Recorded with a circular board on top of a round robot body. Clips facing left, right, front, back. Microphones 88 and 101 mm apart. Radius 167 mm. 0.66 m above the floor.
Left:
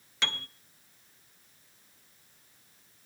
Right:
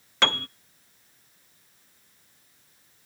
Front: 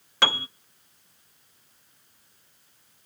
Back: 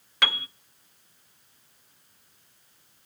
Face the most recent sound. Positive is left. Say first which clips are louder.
# right 10 dB, front 4 dB
turn(degrees=-60)